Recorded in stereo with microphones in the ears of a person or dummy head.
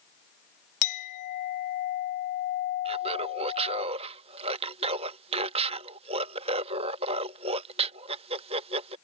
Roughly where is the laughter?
Right.